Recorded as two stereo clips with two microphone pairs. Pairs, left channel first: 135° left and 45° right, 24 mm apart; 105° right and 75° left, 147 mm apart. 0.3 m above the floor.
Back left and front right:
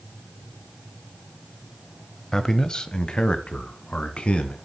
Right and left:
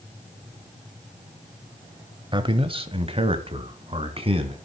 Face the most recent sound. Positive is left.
turn(degrees=125)